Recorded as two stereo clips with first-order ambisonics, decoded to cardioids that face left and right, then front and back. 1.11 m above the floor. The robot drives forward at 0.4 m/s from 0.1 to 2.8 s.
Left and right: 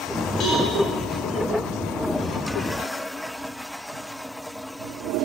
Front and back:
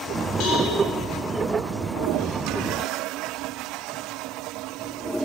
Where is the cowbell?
30° left, 4 m.